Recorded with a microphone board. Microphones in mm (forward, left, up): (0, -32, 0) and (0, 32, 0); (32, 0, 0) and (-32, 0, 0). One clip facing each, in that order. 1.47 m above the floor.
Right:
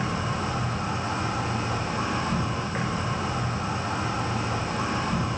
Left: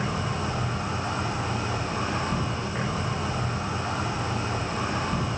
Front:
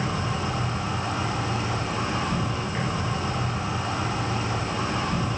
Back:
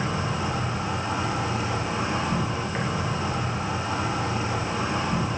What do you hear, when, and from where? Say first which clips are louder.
0.0 s an insect: right 1 dB, even; 115° right, 4.5 m